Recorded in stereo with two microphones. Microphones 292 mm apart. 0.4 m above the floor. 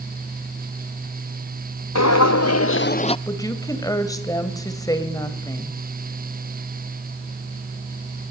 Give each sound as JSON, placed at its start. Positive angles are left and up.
{"t": 1.9, "sound": "footsteps", "side_deg": 65, "distance_m": 0.9}
{"t": 3.3, "sound": "a woman speaking", "side_deg": 10, "distance_m": 2.5}